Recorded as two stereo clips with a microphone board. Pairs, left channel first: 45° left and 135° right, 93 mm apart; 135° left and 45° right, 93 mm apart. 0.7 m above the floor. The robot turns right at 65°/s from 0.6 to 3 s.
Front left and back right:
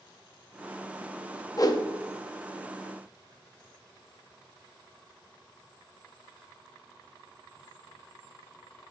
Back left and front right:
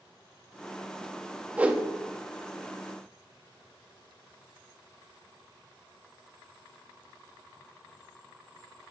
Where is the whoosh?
20° left, 0.6 m; by 1.9 s 40° left, 0.6 m.